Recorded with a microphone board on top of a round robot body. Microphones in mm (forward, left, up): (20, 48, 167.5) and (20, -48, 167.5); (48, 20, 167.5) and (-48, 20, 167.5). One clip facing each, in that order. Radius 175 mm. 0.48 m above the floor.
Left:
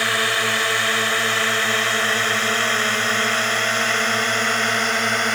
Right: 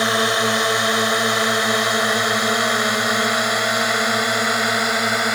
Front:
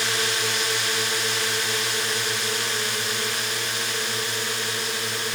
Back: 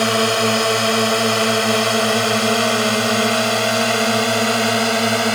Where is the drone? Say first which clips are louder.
Right 3 dB, back 11 dB; 155° right; by 5.3 s 170° right.